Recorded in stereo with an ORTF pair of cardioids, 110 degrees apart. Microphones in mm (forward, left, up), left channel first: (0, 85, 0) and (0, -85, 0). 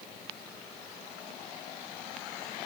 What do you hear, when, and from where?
Only background noise.